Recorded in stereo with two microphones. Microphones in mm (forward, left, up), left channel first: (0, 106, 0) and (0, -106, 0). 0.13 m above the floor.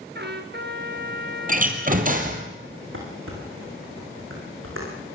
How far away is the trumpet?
About 1.9 m.